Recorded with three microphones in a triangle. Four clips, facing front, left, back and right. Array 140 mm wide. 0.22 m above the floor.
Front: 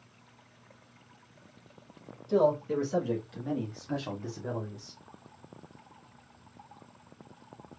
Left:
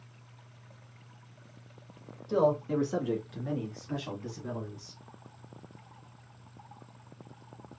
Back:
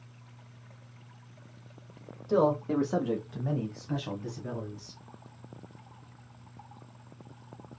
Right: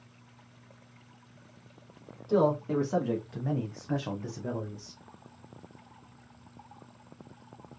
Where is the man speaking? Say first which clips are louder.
Right 1 dB, even; 155° right, 2 m; by 5.0 s 30° right, 1.7 m.